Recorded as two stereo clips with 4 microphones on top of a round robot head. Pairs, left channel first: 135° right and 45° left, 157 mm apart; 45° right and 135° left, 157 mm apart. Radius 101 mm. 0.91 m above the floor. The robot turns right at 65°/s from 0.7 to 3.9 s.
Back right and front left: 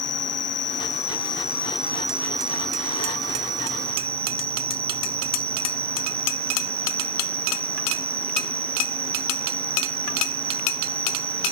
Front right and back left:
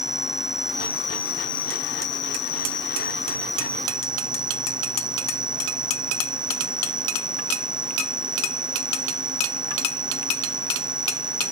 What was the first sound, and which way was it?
An insect, 135° right.